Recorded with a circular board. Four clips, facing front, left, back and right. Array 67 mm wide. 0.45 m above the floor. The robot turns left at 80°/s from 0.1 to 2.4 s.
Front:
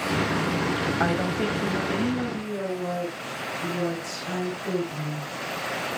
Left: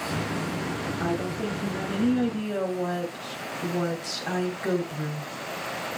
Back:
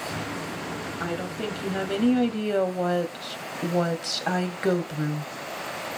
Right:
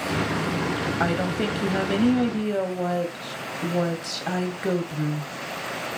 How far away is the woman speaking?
About 2.0 m.